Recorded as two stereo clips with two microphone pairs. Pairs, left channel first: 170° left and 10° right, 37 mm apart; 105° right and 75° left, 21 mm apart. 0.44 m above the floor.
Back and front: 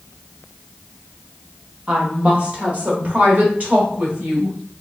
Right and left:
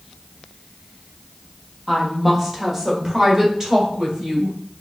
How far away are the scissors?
I don't hear scissors.